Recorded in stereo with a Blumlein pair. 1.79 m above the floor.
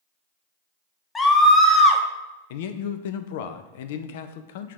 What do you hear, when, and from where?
1.1 s a scream: 15° left, 1.0 m
2.5 s a man speaking: 55° left, 0.5 m